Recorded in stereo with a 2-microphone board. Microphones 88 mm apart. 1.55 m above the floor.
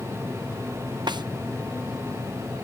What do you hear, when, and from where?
1.1 s a snare drum: 55° right (ahead or behind)